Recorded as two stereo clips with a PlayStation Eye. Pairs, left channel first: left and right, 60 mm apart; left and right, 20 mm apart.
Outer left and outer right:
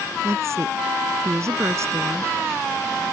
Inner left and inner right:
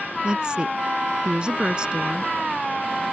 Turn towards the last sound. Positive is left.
turn(degrees=-50)  # may be behind; listen again after turning